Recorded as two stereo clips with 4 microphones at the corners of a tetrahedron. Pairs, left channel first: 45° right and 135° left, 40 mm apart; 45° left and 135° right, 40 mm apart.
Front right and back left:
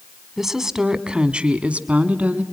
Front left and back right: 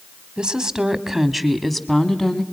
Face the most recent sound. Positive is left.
turn(degrees=115)